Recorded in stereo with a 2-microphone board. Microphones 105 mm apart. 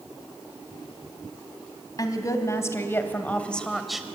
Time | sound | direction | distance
2.0 | a woman speaking | 35° left (ahead or behind) | 2.5 m